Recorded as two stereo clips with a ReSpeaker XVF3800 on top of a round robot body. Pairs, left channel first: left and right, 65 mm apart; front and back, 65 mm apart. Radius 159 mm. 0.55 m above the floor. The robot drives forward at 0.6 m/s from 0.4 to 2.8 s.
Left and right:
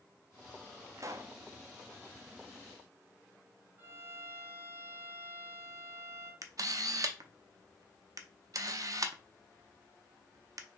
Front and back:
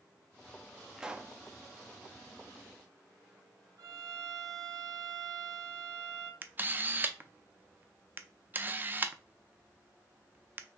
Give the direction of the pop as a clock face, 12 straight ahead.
3 o'clock.